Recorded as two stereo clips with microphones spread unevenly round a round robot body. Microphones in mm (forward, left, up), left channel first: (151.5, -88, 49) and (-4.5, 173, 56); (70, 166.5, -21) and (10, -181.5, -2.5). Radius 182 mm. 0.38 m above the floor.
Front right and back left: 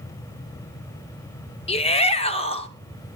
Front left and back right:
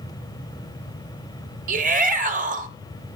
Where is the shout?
70° right, 0.8 m.